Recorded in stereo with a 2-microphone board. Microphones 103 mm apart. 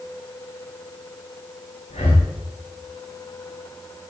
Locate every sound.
1.9 s breathing: 85° left, 6 m